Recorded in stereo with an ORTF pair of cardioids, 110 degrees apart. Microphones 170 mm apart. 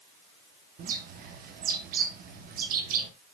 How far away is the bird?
About 1.9 m.